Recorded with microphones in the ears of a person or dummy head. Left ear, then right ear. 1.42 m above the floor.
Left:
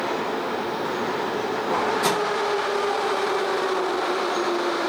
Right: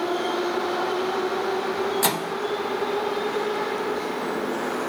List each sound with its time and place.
2.0 s a microwave: 30° right (ahead or behind), 0.6 m